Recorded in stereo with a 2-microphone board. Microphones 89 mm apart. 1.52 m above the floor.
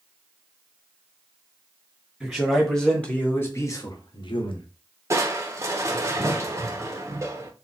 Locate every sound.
2.2 s a man speaking: centre (ahead or behind), 2.0 m; by 4.7 s 80° left, 1.2 m
5.1 s crushing: 35° right (ahead or behind), 0.8 m